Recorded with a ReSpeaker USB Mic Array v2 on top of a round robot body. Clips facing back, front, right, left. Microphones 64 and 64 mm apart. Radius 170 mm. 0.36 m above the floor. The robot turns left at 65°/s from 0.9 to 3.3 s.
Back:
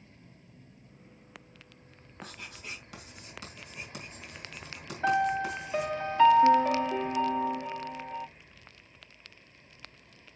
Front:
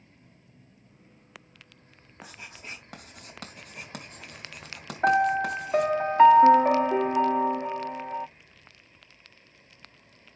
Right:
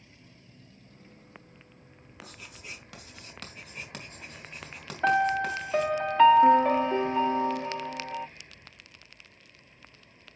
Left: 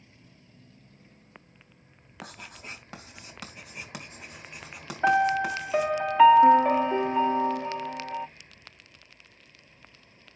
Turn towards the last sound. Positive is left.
turn(degrees=15)